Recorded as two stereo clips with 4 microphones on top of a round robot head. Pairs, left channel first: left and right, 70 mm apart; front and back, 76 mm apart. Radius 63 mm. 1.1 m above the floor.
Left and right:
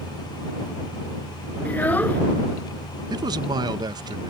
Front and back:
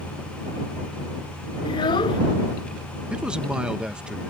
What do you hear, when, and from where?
1.6 s a child speaking: 25° left
3.1 s a man speaking: 100° right